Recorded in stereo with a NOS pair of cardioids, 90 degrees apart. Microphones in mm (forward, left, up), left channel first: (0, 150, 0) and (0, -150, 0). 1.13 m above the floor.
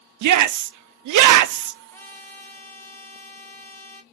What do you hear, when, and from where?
0.2 s a shout: 65° right, 0.6 m
1.9 s a trumpet: 5° left, 1.6 m